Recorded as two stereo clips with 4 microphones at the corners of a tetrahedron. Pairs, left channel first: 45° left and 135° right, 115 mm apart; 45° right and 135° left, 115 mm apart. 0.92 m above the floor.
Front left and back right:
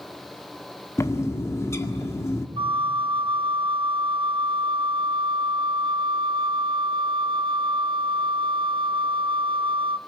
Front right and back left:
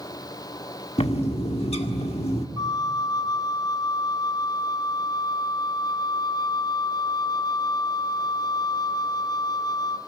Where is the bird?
20° right, 1.7 m.